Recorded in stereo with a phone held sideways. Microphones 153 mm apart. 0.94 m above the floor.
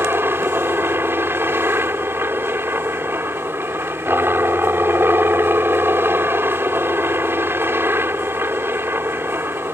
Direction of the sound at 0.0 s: 15° right (ahead or behind).